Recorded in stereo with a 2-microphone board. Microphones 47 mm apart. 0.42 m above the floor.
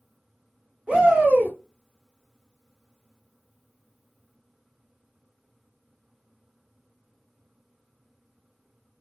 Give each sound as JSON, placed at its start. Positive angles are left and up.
{"t": 0.9, "sound": "a shout", "side_deg": -30, "distance_m": 1.3}